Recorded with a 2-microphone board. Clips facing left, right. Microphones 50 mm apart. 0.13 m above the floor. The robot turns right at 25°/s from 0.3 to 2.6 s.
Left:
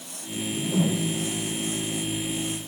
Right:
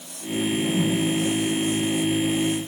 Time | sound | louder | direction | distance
0.4 | a whoosh | right 3 dB | 65° left (ahead or behind) | 4 m